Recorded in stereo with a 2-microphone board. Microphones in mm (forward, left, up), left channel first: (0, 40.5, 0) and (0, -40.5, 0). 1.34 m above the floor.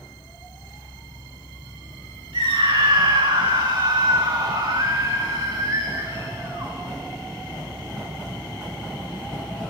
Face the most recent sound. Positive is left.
turn(degrees=-35)  # may be behind; listen again after turning